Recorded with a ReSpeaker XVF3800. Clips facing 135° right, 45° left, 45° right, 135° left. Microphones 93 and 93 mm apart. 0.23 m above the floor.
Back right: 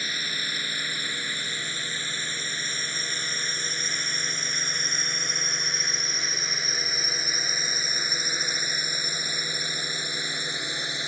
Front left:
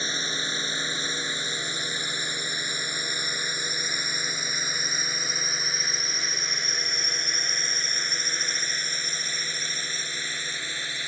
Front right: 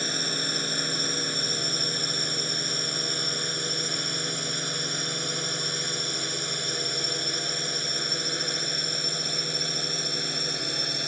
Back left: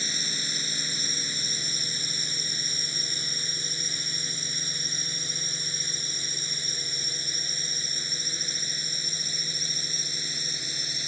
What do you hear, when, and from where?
0.0 s a drone: 20° right; by 11.1 s 65° right